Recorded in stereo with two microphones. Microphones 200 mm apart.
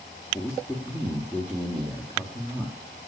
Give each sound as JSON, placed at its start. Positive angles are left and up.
{"t": 0.3, "sound": "a man speaking", "side_deg": 0, "distance_m": 2.5}